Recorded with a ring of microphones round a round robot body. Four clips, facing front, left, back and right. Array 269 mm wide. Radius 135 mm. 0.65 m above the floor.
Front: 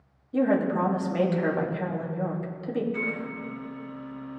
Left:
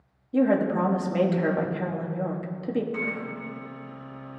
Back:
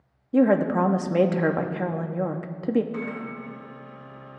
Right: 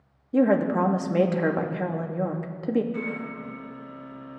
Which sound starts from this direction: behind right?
A woman speaking, at 0.3 s.